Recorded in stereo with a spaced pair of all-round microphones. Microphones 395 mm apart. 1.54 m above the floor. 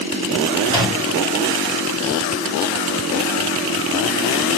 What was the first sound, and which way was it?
A microwave, 10° right (ahead or behind).